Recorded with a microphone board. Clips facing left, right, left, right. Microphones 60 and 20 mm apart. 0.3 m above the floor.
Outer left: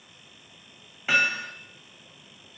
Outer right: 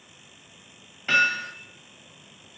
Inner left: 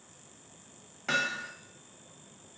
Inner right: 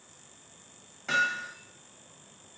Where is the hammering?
10° left (ahead or behind), 0.7 m.